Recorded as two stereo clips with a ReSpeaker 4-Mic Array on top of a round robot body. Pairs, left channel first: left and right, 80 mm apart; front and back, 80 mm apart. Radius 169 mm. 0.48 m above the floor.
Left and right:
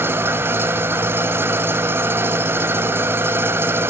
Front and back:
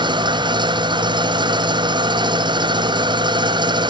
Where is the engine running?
155° right, 1.8 m.